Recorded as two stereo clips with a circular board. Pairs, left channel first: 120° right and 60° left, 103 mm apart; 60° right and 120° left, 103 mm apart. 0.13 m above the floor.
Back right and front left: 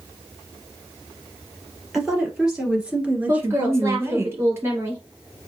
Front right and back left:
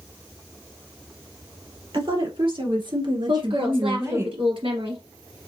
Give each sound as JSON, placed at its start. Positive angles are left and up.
{"t": 1.9, "sound": "a woman speaking", "azimuth_deg": 145, "distance_m": 2.5}
{"t": 3.3, "sound": "a woman speaking", "azimuth_deg": 120, "distance_m": 2.5}